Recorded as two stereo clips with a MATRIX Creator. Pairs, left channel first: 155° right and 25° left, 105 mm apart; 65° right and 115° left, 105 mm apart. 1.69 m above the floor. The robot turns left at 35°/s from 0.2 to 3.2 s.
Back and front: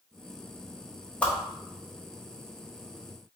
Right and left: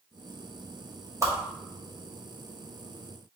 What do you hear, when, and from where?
1.2 s a whoosh: 135° left, 1.1 m; by 1.3 s 130° left, 1.1 m